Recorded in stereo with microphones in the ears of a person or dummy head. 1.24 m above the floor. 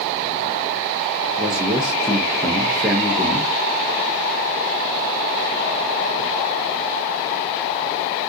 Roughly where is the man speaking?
Centre.